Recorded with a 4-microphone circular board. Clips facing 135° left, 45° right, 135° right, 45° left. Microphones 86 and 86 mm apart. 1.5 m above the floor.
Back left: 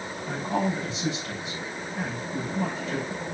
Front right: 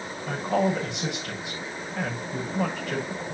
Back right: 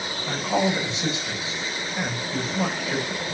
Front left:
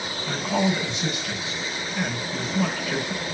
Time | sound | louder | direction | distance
0.3 | a woman speaking | front right 3 dB, back right 1 dB | 70° right | 6 m